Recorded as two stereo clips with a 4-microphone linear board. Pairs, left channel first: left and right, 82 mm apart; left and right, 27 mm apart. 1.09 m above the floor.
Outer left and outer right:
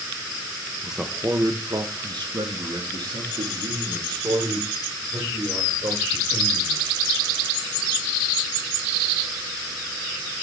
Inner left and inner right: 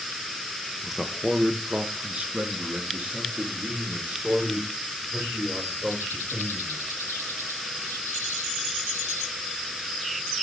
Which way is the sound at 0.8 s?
5° right (ahead or behind).